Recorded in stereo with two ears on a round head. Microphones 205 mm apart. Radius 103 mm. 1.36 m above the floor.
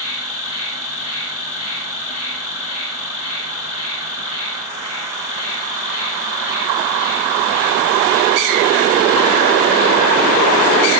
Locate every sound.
0.0 s an insect: 70° left (ahead or behind), 3 m